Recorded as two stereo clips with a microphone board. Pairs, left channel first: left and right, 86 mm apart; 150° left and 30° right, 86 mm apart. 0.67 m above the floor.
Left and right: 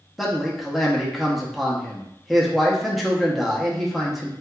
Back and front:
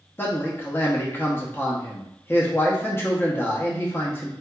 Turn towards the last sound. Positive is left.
turn(degrees=180)